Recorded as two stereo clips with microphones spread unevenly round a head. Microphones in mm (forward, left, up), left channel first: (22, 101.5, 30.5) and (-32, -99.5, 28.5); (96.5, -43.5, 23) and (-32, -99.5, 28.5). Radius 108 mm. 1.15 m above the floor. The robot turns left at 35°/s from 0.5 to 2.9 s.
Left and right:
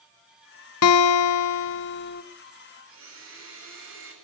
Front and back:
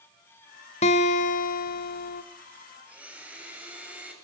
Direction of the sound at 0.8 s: 80° left.